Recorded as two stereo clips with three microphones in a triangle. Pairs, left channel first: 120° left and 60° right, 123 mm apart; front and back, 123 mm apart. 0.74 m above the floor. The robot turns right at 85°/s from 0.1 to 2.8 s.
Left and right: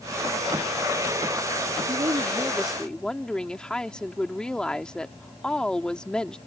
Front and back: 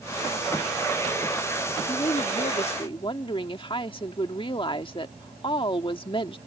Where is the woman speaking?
40° right; by 6.4 s 40° left.